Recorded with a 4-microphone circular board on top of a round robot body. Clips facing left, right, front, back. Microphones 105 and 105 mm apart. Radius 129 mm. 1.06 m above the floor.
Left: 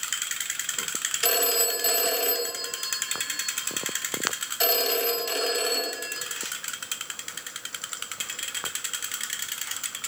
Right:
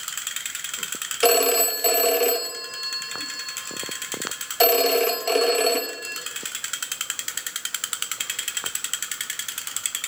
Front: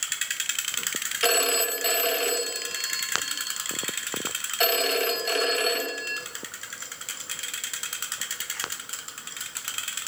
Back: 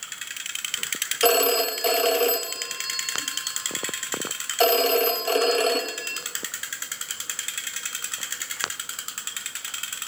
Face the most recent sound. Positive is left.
turn(degrees=-125)